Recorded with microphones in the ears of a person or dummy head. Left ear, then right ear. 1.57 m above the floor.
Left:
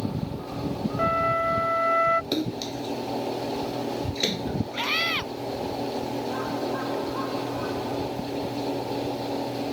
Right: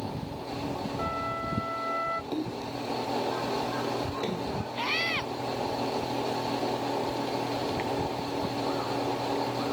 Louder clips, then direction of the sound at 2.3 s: Left 4 dB; 45° left (ahead or behind).